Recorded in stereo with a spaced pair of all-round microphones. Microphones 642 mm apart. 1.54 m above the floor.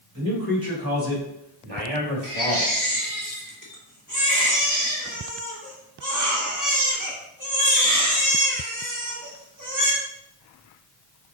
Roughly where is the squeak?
I don't hear a squeak.